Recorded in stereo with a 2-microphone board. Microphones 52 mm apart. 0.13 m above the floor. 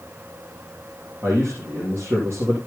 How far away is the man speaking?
About 4.5 m.